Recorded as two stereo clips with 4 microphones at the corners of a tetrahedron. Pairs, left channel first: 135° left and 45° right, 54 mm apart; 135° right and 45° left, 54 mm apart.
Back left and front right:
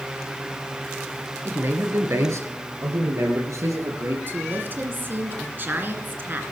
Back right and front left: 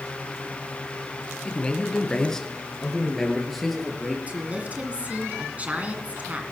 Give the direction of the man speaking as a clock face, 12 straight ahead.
2 o'clock.